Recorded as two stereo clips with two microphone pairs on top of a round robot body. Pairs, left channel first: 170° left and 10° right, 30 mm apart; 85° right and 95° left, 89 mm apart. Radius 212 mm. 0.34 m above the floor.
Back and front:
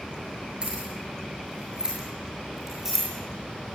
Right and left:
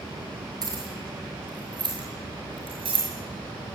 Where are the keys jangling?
50° left, 7 m; by 3.1 s 75° left, 6 m.